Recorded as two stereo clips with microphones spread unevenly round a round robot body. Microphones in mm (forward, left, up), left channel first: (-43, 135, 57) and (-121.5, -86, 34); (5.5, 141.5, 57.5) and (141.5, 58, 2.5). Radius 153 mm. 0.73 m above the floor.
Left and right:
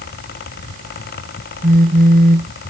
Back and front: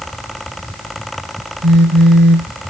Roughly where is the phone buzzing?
Ahead right.